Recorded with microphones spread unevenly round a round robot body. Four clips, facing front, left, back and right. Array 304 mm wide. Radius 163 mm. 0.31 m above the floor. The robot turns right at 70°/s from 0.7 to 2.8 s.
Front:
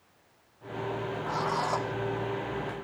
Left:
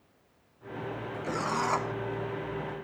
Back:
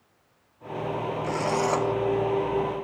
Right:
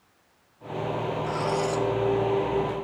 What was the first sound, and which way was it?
A drill, 130° left.